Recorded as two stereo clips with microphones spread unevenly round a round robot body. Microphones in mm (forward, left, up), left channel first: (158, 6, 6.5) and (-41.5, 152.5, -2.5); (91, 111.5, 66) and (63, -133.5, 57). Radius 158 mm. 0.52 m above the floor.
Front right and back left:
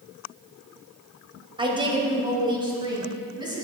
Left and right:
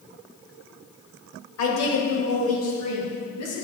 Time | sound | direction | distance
1.6 | a woman speaking | 75° left | 2.5 m